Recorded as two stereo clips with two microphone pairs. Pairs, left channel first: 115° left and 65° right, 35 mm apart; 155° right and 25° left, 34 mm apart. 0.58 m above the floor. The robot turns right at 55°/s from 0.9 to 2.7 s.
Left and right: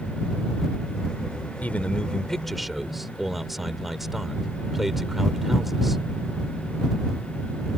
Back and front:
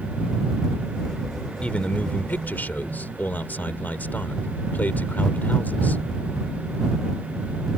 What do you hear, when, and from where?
1.6 s a man speaking: 155° left; by 6.0 s 145° right